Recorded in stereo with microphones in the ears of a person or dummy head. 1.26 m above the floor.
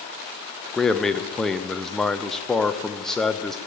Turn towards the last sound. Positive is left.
turn(degrees=5)  # may be behind; listen again after turning